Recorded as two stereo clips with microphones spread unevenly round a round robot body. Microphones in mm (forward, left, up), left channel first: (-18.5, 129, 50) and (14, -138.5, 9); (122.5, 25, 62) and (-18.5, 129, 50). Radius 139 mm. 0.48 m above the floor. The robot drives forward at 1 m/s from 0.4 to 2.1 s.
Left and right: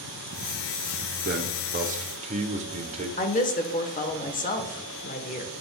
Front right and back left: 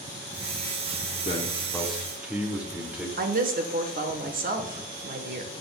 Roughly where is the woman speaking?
Behind.